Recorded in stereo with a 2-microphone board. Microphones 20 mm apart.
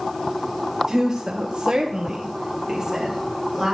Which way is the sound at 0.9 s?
30° right (ahead or behind).